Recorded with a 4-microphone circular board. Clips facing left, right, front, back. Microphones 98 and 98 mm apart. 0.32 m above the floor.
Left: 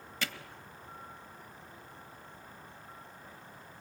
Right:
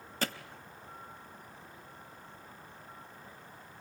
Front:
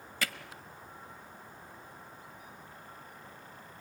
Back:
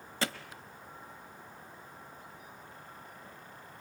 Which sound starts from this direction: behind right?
Hammering, at 0.2 s.